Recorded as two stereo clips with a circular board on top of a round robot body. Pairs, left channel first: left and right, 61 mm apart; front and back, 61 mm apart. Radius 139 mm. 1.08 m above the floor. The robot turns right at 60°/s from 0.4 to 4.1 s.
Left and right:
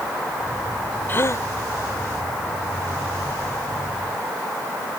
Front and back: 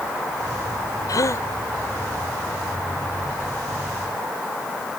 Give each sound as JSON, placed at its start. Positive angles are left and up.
{"t": 1.1, "sound": "a gasp", "azimuth_deg": 30}